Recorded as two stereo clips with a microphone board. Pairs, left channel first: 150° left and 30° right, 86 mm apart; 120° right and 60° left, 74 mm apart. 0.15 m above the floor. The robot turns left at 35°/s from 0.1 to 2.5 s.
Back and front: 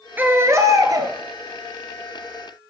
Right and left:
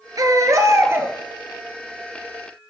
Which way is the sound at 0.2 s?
35° left.